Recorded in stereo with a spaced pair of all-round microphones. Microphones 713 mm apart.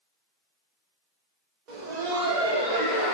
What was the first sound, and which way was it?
Laughter, 80° right.